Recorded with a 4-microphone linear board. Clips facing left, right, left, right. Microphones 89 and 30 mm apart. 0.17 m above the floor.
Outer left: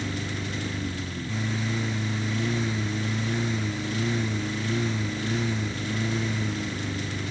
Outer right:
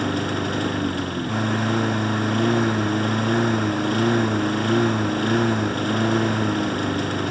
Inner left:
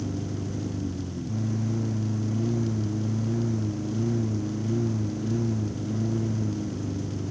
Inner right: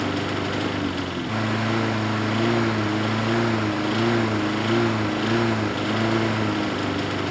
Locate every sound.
0.0 s a lawn mower: 60° right (ahead or behind)